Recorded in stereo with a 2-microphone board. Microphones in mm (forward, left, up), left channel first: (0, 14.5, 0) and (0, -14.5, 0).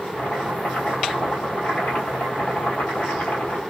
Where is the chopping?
70° left (ahead or behind), 1.4 m.